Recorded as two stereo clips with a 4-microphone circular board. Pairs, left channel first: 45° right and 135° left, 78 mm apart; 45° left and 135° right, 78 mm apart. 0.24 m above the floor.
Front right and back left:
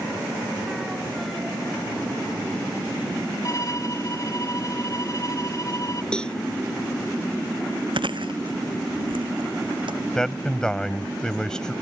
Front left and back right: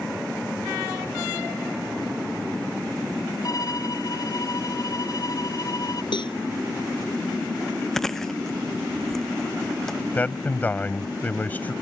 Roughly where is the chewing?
Behind left.